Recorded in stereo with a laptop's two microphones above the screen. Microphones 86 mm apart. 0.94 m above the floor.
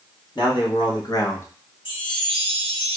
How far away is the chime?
About 1.6 m.